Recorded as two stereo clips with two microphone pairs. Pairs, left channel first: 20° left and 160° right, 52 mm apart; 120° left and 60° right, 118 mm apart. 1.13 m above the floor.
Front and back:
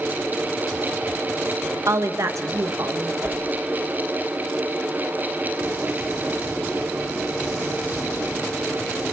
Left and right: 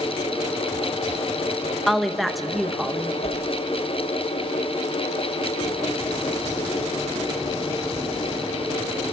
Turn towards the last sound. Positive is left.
turn(degrees=155)